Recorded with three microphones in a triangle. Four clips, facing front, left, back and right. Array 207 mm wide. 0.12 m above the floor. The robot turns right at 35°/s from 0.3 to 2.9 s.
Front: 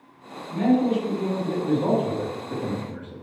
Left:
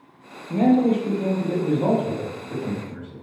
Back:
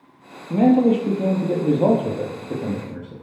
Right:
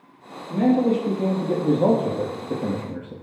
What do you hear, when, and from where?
0.5 s a man speaking: 165° left, 4 m; by 3.1 s 110° right, 4 m